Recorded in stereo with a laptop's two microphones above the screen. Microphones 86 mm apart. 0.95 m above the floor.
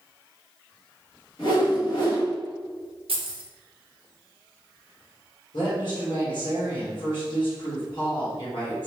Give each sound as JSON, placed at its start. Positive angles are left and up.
{"t": 1.4, "sound": "a whoosh", "side_deg": 60, "distance_m": 1.7}
{"t": 3.1, "sound": "keys jangling", "side_deg": -80, "distance_m": 0.6}
{"t": 5.5, "sound": "a woman speaking", "side_deg": 60, "distance_m": 1.5}